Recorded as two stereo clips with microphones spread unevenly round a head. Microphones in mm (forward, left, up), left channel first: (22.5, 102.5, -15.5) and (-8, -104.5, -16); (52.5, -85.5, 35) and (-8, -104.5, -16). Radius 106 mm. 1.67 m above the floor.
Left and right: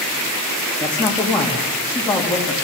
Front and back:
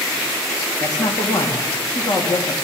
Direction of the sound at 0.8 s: 5° right.